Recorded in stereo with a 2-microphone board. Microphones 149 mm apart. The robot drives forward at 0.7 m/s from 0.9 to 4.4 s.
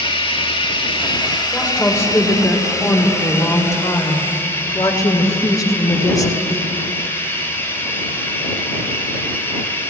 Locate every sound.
0.0 s running water: 35° left (ahead or behind), 1.9 m; by 9.9 s 15° left (ahead or behind), 4 m
1.5 s a woman speaking: 15° left (ahead or behind), 4.5 m; by 6.6 s 25° left (ahead or behind), 3 m